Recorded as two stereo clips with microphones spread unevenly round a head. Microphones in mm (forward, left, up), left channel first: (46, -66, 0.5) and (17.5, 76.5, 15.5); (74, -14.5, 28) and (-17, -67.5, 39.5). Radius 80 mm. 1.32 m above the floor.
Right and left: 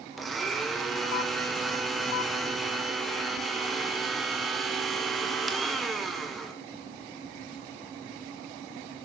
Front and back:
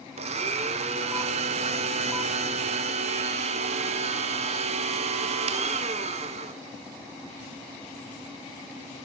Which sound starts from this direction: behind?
A blender, at 0.2 s.